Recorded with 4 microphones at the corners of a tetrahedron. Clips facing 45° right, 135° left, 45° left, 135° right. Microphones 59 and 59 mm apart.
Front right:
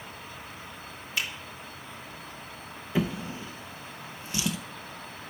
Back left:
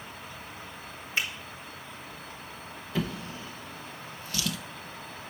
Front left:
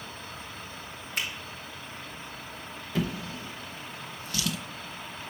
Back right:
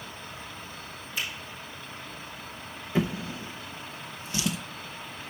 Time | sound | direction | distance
1.2 | a finger snap | 75° left | 3.5 m
3.0 | a drawer | 95° right | 0.7 m